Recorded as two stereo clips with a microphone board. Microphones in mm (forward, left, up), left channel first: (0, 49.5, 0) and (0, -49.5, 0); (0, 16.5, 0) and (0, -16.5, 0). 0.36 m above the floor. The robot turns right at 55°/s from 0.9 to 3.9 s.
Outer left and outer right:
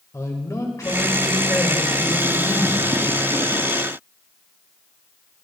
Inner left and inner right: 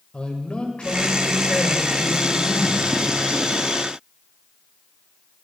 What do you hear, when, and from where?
0.1 s a man speaking: 65° left, 1.8 m; by 2.9 s 175° left, 1.8 m